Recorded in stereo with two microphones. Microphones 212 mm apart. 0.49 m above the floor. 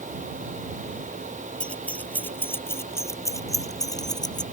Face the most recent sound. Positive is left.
turn(degrees=20)  # may be behind; listen again after turning